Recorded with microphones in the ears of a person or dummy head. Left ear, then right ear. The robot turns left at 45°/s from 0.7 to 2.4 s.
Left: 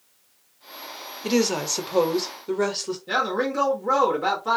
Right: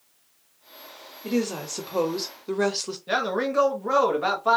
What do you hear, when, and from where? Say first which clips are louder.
1.2 s a woman speaking: left 5 dB; 45° left, 0.6 m; by 3.0 s 10° right, 0.6 m
3.1 s a man speaking: left 1 dB; 25° right (ahead or behind), 0.8 m